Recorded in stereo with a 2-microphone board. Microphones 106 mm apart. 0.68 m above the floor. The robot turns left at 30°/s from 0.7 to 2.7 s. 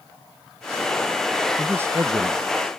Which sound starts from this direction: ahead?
A man speaking, at 1.6 s.